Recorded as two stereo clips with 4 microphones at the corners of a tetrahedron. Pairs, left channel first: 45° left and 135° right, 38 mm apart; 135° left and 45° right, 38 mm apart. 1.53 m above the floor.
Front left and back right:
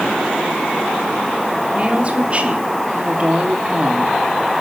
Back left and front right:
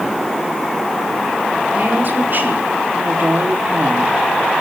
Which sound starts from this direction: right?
A woman speaking, at 1.7 s.